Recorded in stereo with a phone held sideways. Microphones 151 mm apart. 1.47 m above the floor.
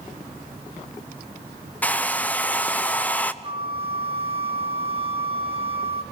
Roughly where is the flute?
Right.